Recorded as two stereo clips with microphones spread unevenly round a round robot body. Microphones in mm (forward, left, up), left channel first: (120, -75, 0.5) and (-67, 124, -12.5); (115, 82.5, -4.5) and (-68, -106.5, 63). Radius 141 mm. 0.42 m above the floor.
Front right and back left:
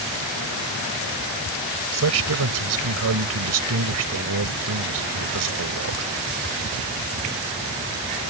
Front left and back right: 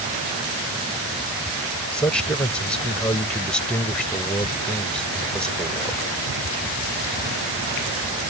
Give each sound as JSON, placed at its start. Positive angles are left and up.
{"t": 1.9, "sound": "a man speaking", "azimuth_deg": 125}